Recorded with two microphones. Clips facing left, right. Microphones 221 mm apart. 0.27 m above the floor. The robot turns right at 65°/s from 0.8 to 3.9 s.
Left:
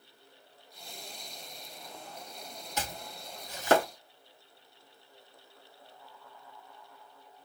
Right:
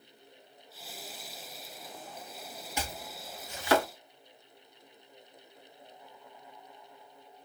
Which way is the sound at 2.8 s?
10° right (ahead or behind).